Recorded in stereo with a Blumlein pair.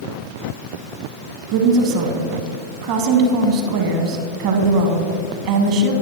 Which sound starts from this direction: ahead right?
A woman speaking, at 1.5 s.